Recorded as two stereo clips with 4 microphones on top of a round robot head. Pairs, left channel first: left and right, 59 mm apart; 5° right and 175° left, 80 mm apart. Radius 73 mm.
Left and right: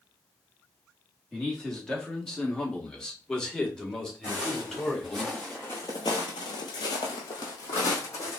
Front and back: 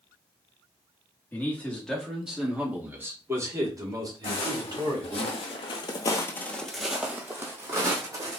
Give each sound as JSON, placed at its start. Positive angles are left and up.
{"t": 1.3, "sound": "a man speaking", "azimuth_deg": 20, "distance_m": 1.4}
{"t": 4.2, "sound": "footsteps", "azimuth_deg": -10, "distance_m": 1.9}